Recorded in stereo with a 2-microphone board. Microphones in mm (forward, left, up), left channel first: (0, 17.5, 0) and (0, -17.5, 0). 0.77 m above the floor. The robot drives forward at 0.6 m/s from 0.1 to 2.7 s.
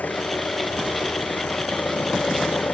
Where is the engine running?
55° left (ahead or behind); by 2.7 s 50° left (ahead or behind).